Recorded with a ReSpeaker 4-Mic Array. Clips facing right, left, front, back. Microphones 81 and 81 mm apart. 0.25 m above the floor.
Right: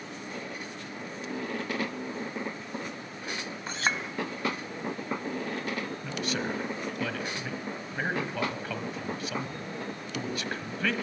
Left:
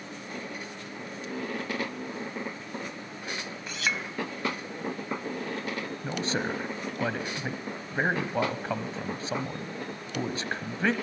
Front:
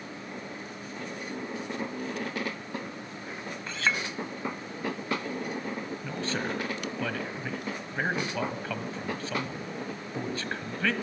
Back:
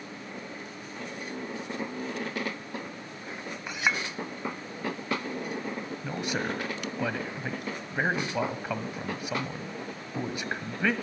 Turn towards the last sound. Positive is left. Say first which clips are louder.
# left 4 dB, back 2 dB
turn(degrees=115)